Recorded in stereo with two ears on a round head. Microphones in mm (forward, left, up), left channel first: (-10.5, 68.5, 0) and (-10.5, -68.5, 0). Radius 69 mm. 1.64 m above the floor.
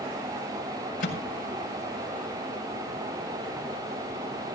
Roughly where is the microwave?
Left.